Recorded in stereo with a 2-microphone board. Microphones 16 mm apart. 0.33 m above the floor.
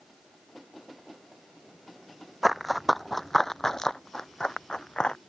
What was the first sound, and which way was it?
Running footsteps, 5° right (ahead or behind).